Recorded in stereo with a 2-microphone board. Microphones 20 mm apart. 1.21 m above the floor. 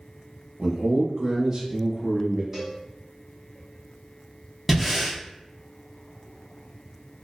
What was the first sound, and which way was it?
A man speaking, 40° right (ahead or behind).